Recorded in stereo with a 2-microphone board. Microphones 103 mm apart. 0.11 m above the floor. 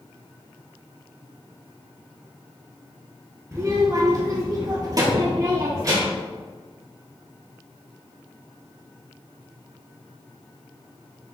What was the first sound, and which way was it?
A child speaking, 30° right (ahead or behind).